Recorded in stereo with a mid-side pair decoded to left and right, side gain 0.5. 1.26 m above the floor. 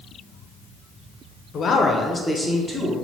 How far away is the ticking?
No ticking in this recording.